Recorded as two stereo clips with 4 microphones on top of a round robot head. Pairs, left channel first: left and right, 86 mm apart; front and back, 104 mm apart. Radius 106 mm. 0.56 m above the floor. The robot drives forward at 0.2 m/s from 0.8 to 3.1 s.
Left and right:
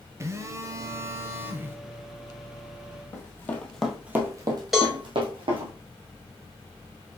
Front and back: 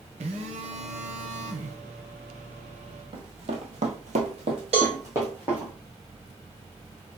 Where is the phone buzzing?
145° right, 0.6 m; by 1.8 s 155° right, 0.7 m.